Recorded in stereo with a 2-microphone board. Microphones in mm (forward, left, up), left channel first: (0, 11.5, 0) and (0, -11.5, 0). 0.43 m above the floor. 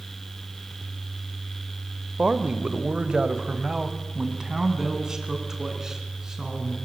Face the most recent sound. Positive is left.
turn(degrees=-20)  # may be behind; listen again after turning